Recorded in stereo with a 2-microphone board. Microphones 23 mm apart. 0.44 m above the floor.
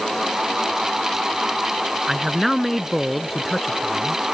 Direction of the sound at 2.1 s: 5° right (ahead or behind).